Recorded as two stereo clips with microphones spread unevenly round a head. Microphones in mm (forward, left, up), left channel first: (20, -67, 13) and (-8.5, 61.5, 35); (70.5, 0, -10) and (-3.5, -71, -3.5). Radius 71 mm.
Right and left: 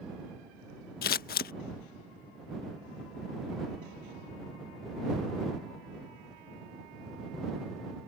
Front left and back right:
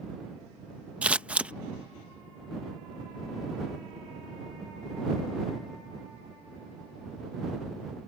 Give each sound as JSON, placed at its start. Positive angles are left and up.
{"t": 1.0, "sound": "scissors", "azimuth_deg": -60}